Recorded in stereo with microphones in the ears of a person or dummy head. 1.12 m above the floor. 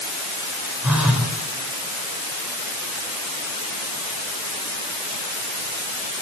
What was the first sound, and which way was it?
A phone buzzing, centre (ahead or behind).